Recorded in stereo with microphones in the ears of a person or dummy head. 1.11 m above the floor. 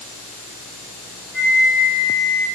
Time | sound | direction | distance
1.3 | a flute | 10° left (ahead or behind) | 1.3 m